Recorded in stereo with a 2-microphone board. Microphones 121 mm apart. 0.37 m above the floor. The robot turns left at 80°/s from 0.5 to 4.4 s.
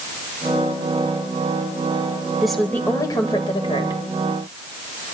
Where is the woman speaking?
175° right, 1.6 m; by 4.0 s 60° left, 1.6 m.